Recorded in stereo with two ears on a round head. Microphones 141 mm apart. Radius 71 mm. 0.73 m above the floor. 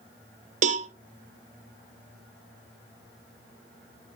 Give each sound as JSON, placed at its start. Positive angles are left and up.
{"t": 0.6, "sound": "a cowbell", "side_deg": -50, "distance_m": 0.6}